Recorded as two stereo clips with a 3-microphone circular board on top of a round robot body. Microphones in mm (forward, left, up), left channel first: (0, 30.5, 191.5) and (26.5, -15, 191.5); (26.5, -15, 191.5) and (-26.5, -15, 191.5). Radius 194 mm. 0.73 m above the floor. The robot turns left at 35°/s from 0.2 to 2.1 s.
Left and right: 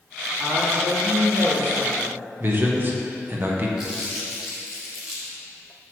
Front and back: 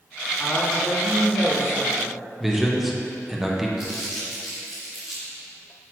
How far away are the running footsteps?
I don't hear running footsteps.